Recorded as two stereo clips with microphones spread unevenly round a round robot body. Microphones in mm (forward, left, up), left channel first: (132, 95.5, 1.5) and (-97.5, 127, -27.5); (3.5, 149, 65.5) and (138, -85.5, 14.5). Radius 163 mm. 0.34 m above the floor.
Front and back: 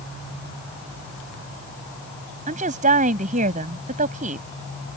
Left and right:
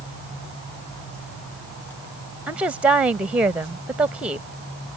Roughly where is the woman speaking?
Behind right.